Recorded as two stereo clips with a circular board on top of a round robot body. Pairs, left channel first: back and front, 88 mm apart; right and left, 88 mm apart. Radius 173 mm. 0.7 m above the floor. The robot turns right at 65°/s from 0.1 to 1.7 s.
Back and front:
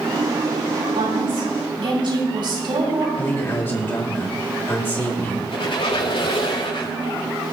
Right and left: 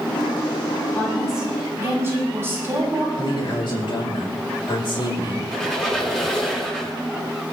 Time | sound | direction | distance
0.9 | a woman speaking | 20° right | 6 m
3.2 | a man speaking | 115° right | 6.5 m
5.5 | a squeak | 175° right | 6.5 m